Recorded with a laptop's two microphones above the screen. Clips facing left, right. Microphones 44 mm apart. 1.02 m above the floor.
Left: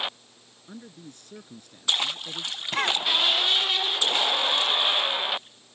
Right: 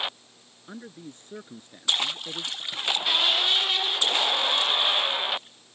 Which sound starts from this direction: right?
A man speaking, at 0.7 s.